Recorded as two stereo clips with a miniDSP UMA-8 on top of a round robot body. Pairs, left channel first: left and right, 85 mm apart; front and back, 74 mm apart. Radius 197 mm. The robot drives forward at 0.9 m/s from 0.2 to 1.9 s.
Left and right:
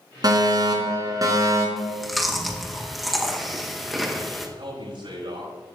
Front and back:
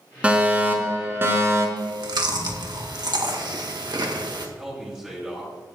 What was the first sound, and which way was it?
A fire alarm, 110° right.